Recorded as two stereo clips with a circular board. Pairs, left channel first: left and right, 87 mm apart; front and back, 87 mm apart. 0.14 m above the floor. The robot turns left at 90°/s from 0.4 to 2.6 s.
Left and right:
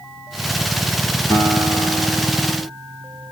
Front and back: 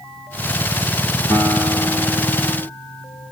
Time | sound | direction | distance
1.3 | a guitar | 60° left | 1.6 m